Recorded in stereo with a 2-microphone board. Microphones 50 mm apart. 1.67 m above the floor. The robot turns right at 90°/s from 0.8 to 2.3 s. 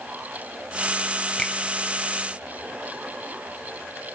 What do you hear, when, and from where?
1.4 s a finger snap: 15° left (ahead or behind), 1.0 m; by 1.5 s centre (ahead or behind), 1.0 m